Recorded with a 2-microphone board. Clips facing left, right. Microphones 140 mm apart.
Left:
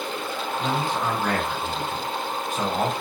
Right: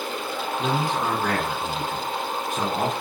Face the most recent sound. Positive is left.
turn(degrees=-50)  # may be behind; listen again after turning